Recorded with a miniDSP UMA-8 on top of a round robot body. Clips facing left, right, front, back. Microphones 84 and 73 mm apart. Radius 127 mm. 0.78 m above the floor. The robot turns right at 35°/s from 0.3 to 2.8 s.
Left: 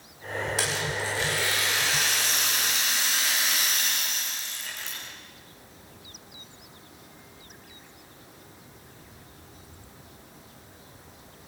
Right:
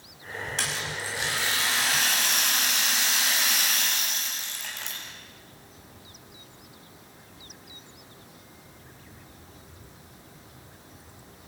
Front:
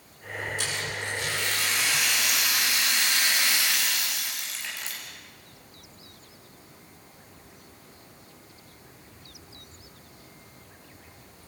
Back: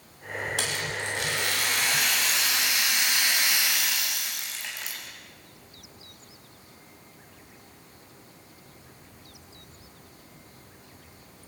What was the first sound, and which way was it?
A rattle, 175° left.